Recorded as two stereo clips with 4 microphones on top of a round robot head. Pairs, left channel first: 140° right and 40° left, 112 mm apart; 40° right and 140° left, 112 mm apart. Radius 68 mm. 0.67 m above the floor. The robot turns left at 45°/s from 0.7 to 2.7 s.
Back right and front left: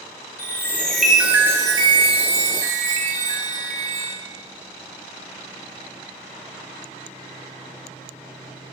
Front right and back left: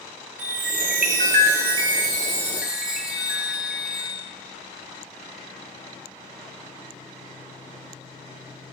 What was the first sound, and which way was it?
A chime, 145° left.